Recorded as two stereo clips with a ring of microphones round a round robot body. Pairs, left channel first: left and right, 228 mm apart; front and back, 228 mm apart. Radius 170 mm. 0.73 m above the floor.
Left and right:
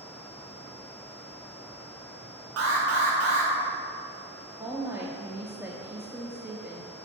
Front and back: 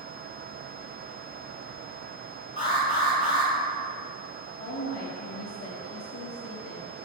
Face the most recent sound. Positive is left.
turn(degrees=-10)